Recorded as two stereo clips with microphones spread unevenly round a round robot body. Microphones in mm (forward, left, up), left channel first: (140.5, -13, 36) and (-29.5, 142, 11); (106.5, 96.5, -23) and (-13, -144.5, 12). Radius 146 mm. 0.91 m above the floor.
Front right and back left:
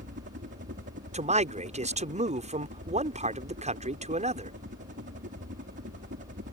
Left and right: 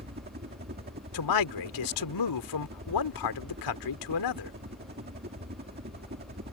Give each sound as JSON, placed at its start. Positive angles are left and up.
{"t": 0.0, "sound": "a helicopter", "azimuth_deg": -175}
{"t": 1.1, "sound": "a man speaking", "azimuth_deg": 75}